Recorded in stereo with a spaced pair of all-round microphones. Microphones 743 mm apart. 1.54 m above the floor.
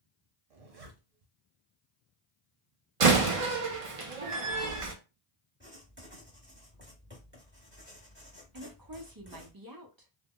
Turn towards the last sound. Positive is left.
turn(degrees=-30)  # may be behind; listen again after turning